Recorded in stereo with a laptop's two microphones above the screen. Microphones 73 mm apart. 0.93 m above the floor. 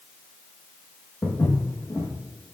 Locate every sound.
1.2 s footsteps: 30° left (ahead or behind), 4 m